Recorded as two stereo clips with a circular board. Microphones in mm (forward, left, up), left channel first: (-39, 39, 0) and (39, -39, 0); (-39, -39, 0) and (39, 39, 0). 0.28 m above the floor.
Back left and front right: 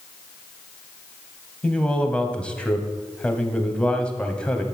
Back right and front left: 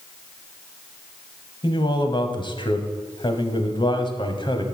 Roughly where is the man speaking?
Behind right.